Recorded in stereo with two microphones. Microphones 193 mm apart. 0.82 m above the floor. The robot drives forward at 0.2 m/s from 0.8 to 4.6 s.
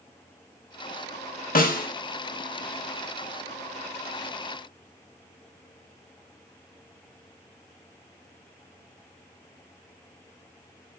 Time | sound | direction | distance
1.6 | a snare drum | 50° left (ahead or behind) | 0.7 m